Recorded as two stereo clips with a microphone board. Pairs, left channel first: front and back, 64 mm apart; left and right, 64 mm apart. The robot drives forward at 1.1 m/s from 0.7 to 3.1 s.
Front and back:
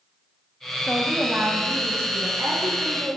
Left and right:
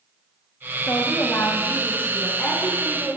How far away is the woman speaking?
About 1.4 m.